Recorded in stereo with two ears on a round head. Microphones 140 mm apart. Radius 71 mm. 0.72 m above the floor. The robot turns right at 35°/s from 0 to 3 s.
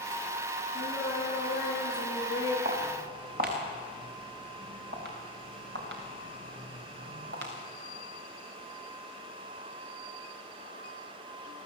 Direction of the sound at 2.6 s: 65° right (ahead or behind).